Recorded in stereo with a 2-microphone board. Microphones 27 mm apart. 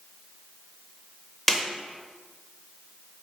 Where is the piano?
I don't hear a piano.